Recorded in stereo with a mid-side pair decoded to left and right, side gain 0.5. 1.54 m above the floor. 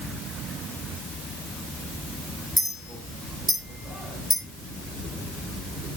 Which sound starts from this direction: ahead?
A clink, at 2.6 s.